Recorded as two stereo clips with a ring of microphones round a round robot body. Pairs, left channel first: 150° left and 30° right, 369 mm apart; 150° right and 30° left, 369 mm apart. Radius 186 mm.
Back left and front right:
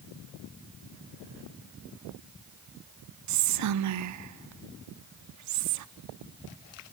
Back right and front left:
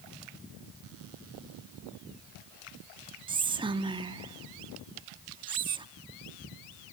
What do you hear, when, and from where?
3.3 s whispering: 45° right, 0.9 m